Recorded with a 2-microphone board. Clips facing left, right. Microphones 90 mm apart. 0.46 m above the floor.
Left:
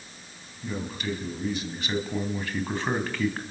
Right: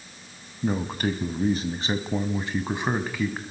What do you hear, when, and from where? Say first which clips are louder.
0.6 s a man speaking: right 6 dB; 55° right (ahead or behind), 3 m; by 3.4 s 5° right (ahead or behind), 3 m